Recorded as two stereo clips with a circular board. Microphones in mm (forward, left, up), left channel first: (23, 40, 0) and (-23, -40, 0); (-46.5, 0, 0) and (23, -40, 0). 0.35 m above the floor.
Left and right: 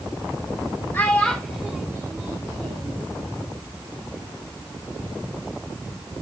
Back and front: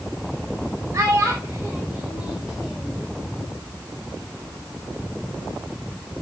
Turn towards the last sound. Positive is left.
turn(degrees=-120)